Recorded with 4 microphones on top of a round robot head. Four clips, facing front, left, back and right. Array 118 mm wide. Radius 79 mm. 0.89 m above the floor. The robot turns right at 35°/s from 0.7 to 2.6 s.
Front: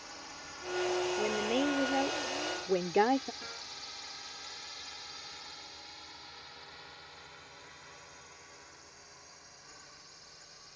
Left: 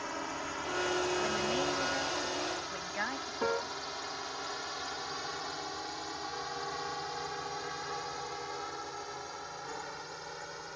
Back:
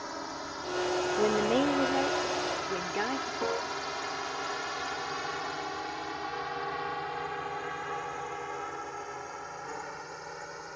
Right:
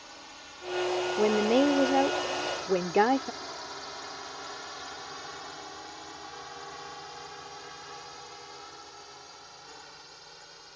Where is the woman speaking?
120° right; by 3.3 s 70° right.